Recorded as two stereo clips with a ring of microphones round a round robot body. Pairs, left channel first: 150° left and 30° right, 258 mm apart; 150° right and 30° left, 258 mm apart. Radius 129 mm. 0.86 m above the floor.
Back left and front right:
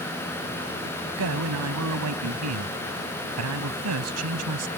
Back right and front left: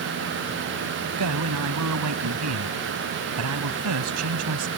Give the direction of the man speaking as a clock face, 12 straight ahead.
12 o'clock.